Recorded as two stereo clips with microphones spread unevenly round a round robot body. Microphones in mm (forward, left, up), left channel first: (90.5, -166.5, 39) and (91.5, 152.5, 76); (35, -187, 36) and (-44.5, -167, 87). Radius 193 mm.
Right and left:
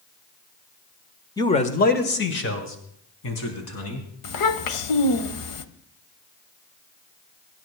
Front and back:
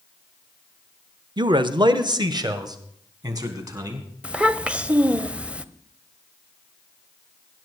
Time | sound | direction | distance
1.4 | a man speaking | 140° right | 1.0 m
4.2 | a child speaking | 105° right | 1.1 m